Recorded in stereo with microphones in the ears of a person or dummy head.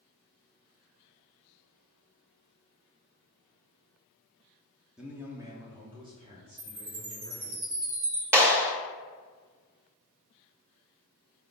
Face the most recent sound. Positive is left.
turn(degrees=-15)  # may be behind; listen again after turning